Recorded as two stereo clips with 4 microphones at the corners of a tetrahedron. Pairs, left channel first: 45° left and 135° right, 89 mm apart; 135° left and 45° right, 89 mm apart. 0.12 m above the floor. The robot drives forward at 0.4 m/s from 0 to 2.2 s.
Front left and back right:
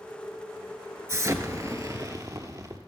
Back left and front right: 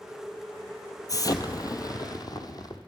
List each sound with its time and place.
1.1 s an explosion: 175° left, 0.7 m